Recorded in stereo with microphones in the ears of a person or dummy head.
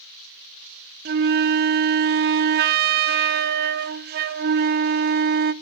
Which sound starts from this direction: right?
A flute, at 1.1 s.